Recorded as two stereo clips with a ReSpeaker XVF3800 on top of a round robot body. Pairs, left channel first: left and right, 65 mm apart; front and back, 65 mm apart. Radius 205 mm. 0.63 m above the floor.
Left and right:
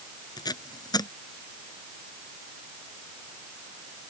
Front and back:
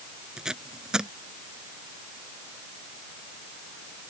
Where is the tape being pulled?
100° left.